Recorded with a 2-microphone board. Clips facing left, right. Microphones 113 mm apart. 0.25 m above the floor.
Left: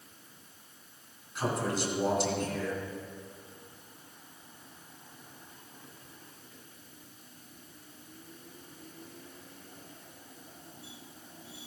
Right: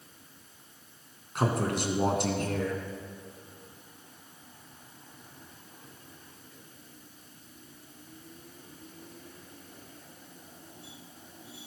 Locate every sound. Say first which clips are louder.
1.4 s a man speaking: right 3 dB; 60° right (ahead or behind), 2.5 m